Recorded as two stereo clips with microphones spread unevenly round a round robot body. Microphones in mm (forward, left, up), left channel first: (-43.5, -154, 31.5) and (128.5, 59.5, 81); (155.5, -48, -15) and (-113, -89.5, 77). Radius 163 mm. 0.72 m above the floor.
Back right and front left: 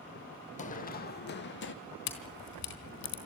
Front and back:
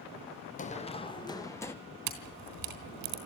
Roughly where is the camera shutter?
Behind.